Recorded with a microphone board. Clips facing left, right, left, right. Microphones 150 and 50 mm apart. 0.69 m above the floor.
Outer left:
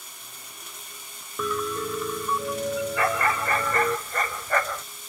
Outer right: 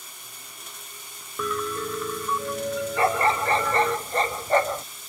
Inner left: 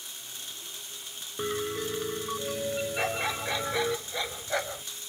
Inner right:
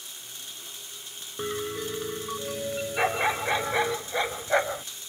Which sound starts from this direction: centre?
A piano, at 1.4 s.